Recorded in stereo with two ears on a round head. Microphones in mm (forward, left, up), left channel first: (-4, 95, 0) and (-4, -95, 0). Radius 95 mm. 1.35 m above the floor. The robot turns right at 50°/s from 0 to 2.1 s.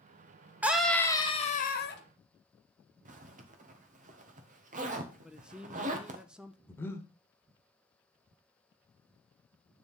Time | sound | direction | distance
0.6 | a scream | 10° right | 1.4 m
3.0 | a zipper | 35° right (ahead or behind) | 1.2 m
5.2 | a man speaking | 5° right (ahead or behind) | 0.6 m
6.7 | breathing | 10° left (ahead or behind) | 1.1 m